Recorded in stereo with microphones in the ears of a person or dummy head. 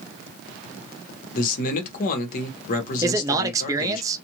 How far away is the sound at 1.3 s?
About 1.3 m.